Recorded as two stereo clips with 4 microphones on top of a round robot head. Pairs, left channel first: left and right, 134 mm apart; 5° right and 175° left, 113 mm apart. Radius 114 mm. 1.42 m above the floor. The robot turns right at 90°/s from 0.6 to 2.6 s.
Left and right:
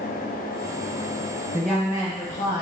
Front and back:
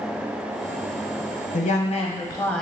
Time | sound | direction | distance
1.5 | a woman speaking | 15° right | 0.7 m